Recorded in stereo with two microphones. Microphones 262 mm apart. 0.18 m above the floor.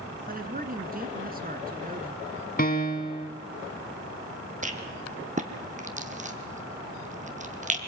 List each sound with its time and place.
0.3 s a man speaking: 30° right (ahead or behind), 1.9 m
2.6 s a piano: 30° left (ahead or behind), 1.4 m
4.6 s a rattle: 25° right (ahead or behind), 1.4 m